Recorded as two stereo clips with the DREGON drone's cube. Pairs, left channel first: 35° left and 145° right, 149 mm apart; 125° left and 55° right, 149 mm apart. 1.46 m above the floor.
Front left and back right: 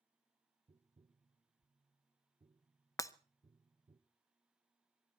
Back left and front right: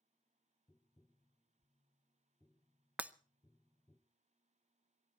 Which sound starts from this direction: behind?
Tapping, at 0.7 s.